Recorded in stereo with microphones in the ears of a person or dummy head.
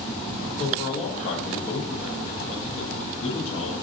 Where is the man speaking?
40° left (ahead or behind), 1.0 m.